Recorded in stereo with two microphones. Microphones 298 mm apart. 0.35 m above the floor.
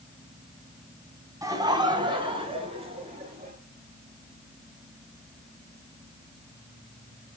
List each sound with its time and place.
1.4 s laughter: 10° right (ahead or behind), 2 m; by 3.5 s 20° right (ahead or behind), 5.5 m